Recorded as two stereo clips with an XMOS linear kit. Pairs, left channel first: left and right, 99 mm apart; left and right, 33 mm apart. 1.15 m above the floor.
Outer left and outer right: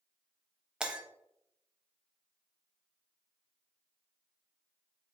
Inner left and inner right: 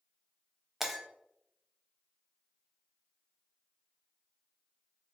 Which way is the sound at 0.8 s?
10° right (ahead or behind).